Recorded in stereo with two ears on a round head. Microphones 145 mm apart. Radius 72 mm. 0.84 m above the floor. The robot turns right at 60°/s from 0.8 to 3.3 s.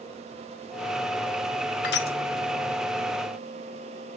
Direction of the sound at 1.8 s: 75° left (ahead or behind).